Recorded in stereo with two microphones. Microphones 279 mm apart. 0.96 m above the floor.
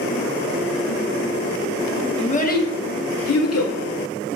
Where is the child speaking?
20° left (ahead or behind), 0.7 m; by 3.8 s 60° left (ahead or behind), 0.6 m.